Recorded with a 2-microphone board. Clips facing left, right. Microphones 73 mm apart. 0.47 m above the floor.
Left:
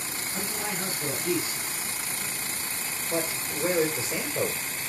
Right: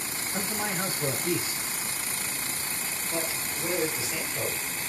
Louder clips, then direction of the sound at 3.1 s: Left 4 dB; 45° left (ahead or behind).